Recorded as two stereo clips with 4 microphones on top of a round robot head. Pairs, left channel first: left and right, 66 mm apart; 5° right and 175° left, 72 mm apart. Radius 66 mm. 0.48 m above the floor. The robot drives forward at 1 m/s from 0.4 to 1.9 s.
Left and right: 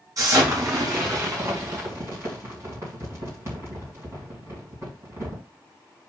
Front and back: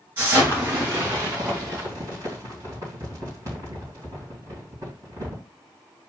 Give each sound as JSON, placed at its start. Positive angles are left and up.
{"t": 0.2, "sound": "an explosion", "azimuth_deg": -125, "distance_m": 4.5}